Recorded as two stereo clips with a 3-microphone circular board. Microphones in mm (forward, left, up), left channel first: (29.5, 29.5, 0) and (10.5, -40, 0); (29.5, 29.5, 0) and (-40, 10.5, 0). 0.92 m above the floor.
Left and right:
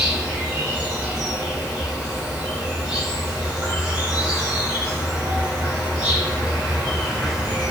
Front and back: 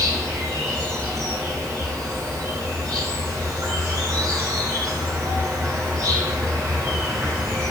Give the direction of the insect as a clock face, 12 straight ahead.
6 o'clock.